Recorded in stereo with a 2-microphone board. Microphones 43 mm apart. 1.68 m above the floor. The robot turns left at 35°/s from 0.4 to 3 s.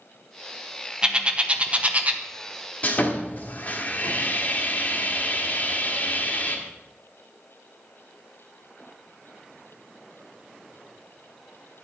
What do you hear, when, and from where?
1.0 s a bird: 20° right (ahead or behind), 0.8 m; by 2.2 s 40° right (ahead or behind), 0.8 m
2.8 s sawing: 35° left (ahead or behind), 1.5 m